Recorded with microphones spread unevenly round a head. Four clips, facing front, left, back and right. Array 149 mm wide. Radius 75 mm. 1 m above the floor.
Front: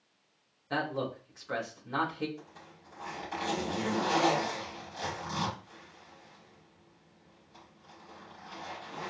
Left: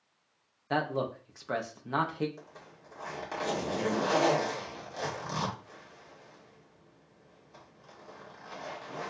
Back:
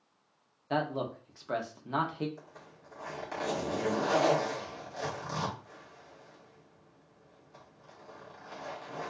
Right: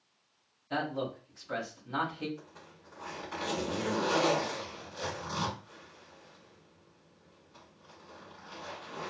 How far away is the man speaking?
About 1.0 m.